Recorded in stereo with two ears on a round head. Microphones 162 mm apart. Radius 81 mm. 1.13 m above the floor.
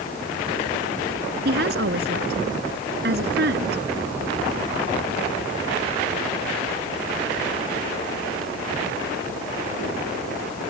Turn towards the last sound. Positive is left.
turn(degrees=-60)  # may be behind; listen again after turning